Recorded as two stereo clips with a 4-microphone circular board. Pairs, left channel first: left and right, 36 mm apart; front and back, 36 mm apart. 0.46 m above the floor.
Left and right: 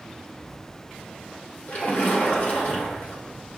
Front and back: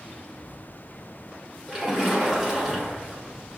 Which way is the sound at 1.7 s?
100° left.